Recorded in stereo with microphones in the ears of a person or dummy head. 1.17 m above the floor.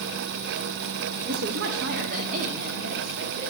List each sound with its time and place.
1.3 s a woman speaking: 55° right (ahead or behind), 0.9 m; by 3.5 s 50° right (ahead or behind), 3 m